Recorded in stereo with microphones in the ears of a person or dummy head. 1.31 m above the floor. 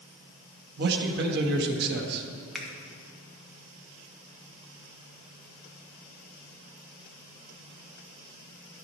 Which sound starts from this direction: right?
A man speaking, at 0.8 s.